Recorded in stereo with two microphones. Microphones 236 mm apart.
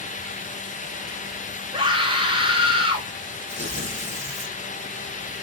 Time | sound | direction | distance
1.7 | a scream | 20° right (ahead or behind) | 2 m
3.5 | tearing paper | 55° right (ahead or behind) | 3.5 m